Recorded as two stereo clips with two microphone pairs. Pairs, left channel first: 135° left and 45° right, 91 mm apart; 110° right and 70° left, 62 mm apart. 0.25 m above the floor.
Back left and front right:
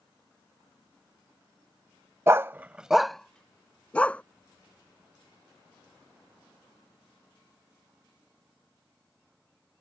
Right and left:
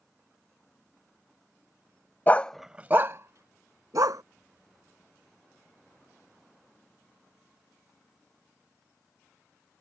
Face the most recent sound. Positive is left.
turn(degrees=60)